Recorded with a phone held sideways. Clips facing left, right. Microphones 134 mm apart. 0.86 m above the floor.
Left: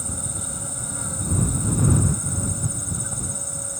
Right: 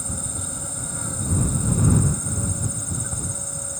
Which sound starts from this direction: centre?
An insect, at 0.0 s.